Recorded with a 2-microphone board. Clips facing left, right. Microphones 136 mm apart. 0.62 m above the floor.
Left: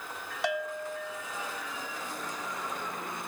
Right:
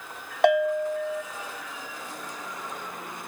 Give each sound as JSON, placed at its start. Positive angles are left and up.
{"t": 0.4, "sound": "a bell", "side_deg": -60, "distance_m": 0.7}